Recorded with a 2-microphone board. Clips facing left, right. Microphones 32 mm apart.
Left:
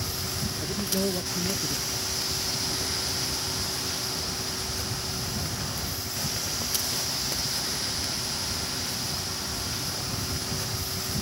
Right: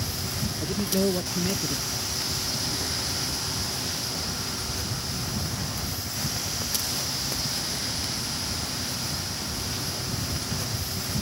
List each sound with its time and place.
0.6 s a man speaking: 10° right (ahead or behind)